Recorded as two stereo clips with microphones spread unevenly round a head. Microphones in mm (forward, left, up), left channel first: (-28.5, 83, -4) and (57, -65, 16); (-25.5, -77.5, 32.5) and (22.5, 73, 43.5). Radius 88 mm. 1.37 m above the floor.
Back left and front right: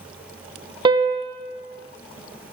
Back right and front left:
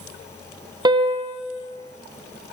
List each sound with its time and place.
0.8 s a piano: 5° left, 0.6 m